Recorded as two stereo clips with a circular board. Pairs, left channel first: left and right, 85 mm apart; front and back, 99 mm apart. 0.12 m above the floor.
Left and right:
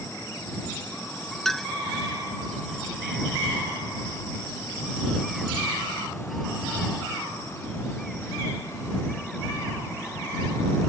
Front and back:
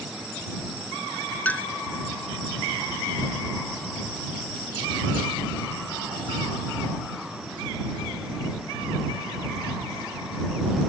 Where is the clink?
15° left.